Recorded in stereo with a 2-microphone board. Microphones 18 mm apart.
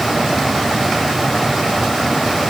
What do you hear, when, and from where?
Only background noise.